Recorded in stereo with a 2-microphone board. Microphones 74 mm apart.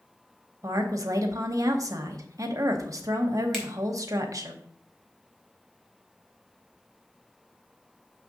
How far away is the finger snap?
About 2.5 m.